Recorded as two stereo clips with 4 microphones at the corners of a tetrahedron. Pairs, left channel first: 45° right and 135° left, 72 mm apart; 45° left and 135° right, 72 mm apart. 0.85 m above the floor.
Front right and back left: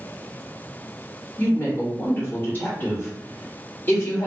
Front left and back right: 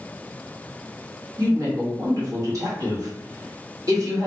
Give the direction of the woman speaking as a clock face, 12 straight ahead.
3 o'clock.